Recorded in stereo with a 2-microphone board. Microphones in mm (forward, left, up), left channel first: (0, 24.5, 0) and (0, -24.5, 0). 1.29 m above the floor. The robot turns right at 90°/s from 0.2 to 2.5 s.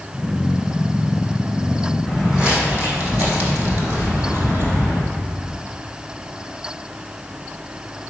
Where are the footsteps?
5° left (ahead or behind), 3.5 m; by 5.0 s 55° right (ahead or behind), 2.5 m.